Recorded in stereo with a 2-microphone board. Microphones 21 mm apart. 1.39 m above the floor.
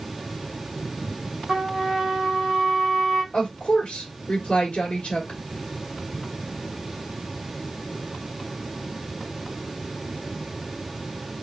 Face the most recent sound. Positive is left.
turn(degrees=80)